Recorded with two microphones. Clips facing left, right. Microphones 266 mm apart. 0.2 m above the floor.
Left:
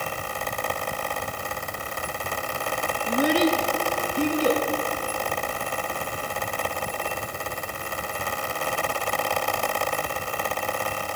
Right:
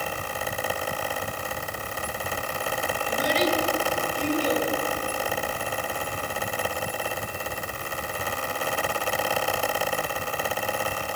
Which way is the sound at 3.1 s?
60° left (ahead or behind).